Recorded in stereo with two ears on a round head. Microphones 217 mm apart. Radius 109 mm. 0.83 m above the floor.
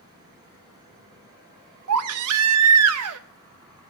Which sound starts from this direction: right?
A baby crying, at 1.9 s.